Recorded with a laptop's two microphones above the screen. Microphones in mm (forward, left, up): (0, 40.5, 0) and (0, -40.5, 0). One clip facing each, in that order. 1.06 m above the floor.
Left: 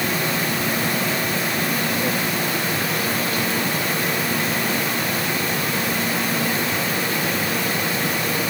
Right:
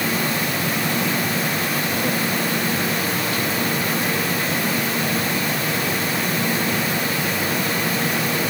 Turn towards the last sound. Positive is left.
No sound to turn to.